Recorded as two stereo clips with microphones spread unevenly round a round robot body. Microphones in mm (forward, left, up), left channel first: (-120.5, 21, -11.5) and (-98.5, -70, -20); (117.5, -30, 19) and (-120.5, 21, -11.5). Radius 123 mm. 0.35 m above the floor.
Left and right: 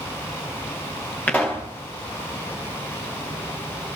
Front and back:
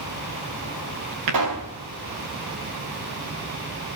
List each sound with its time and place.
1.3 s a pop: 175° left, 9 m